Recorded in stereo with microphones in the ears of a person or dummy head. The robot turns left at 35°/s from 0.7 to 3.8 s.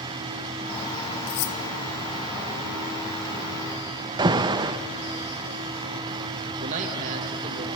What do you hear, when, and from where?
1.3 s cutlery clinking: 65° left (ahead or behind), 0.7 m; by 1.6 s 55° left (ahead or behind), 0.7 m
4.2 s an alarm: 25° right (ahead or behind), 0.6 m
6.6 s a man speaking: 40° right (ahead or behind), 1.8 m